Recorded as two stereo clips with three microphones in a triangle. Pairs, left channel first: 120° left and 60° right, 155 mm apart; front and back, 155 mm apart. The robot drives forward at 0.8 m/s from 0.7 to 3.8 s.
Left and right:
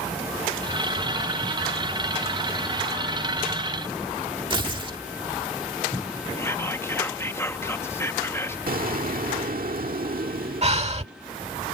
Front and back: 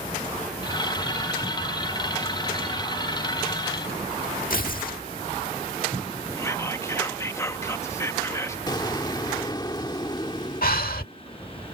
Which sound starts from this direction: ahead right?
An explosion, at 8.7 s.